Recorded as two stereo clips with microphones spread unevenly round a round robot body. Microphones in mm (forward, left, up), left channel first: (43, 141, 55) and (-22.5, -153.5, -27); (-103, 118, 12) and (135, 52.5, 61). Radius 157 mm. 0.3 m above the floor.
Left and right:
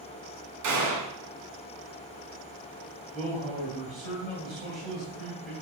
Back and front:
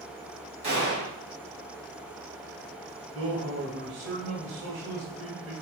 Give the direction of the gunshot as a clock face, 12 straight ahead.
3 o'clock.